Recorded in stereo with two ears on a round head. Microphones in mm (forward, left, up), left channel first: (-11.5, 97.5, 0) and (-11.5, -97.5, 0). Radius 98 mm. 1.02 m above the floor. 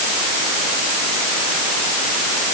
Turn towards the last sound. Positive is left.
No sound to turn to.